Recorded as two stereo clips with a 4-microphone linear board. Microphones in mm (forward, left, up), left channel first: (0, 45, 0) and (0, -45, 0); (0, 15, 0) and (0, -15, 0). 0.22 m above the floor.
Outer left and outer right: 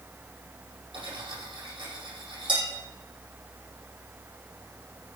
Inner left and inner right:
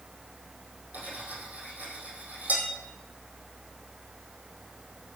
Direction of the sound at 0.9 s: 75° right (ahead or behind).